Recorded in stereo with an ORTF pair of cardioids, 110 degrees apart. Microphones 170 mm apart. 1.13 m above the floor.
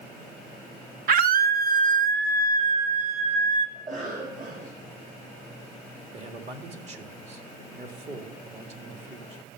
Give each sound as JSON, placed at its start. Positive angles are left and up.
{"t": 1.1, "sound": "a scream", "azimuth_deg": -60, "distance_m": 1.2}
{"t": 3.8, "sound": "a cough", "azimuth_deg": -45, "distance_m": 6.0}
{"t": 6.1, "sound": "a man speaking", "azimuth_deg": -40, "distance_m": 2.0}